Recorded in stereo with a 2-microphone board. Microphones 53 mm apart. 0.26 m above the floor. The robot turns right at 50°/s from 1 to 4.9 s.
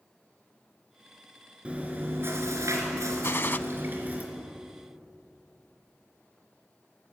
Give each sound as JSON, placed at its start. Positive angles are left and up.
{"t": 1.6, "sound": "chewing", "azimuth_deg": -160, "distance_m": 3.5}
{"t": 3.2, "sound": "a gunshot", "side_deg": 50, "distance_m": 0.7}